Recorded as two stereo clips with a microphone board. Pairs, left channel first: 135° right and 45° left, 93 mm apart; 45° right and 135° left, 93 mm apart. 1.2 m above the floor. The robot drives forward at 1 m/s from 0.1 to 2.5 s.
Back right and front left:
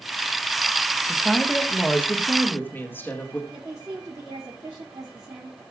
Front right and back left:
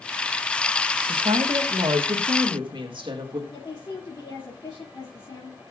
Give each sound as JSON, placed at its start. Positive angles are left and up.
{"t": 1.0, "sound": "a woman speaking", "azimuth_deg": 120, "distance_m": 1.1}
{"t": 3.5, "sound": "a woman speaking", "azimuth_deg": -10, "distance_m": 3.0}